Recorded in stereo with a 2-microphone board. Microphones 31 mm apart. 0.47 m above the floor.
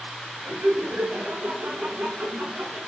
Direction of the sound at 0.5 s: 70° right (ahead or behind).